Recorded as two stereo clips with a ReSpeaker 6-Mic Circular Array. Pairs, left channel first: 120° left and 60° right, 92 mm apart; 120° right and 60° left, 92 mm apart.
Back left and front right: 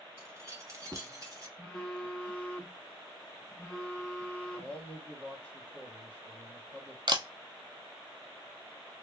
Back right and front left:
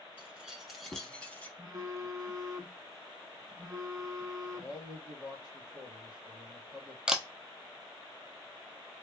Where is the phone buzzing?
50° left, 0.7 m.